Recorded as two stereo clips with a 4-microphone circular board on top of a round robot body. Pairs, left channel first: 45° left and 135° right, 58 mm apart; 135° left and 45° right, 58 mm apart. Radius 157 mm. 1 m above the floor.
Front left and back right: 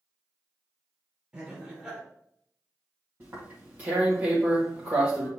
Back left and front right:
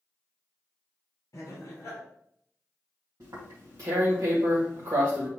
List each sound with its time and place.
1.3 s laughter: 155° left, 2.5 m
3.2 s tearing paper: 75° right, 1.3 m